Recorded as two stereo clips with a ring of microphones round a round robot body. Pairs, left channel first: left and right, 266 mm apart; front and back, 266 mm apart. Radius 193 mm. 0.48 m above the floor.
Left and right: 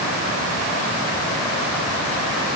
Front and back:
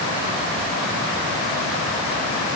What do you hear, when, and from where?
Only background noise.